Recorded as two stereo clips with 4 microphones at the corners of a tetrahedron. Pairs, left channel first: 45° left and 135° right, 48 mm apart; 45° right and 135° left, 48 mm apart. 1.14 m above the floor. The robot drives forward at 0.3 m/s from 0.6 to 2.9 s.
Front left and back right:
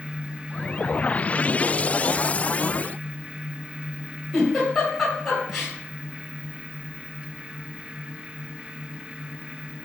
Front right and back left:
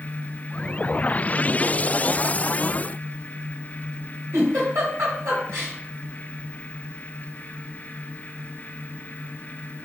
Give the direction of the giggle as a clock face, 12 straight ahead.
8 o'clock.